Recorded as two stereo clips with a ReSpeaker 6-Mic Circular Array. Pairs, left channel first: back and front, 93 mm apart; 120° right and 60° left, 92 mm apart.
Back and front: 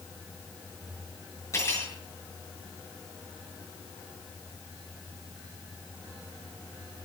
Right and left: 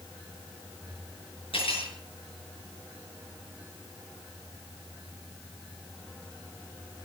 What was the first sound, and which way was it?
Cutlery clinking, 125° right.